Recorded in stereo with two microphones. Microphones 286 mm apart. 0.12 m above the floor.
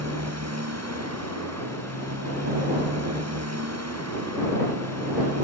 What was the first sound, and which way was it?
A motorcycle, 60° right (ahead or behind).